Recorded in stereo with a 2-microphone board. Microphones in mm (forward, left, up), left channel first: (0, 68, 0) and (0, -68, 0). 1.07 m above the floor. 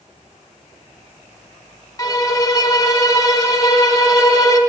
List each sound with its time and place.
2.0 s a violin: 25° left (ahead or behind), 0.6 m